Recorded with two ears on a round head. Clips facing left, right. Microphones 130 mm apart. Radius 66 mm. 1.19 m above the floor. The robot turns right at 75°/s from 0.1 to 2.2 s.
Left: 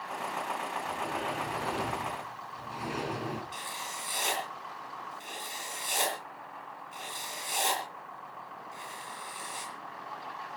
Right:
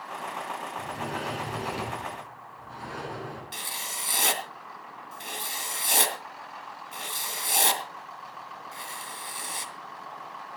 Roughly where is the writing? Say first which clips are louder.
Even; right.